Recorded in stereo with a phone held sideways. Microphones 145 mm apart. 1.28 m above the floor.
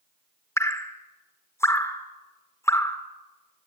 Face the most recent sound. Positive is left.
turn(degrees=20)  # may be behind; listen again after turning